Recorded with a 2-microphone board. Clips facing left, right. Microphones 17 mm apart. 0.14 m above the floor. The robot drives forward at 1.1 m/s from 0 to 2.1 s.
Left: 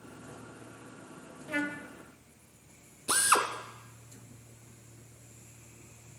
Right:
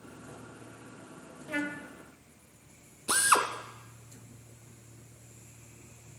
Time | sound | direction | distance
1.5 | a trumpet | 5° left (ahead or behind) | 1.1 m
3.1 | a drill | 15° right (ahead or behind) | 1.4 m